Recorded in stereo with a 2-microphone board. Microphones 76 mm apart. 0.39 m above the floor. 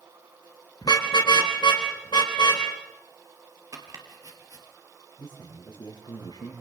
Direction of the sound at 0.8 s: 60° left (ahead or behind).